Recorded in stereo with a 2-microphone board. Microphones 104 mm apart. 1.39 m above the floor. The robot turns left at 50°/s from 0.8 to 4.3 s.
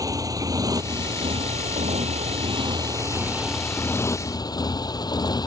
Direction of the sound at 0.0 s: 35° right (ahead or behind).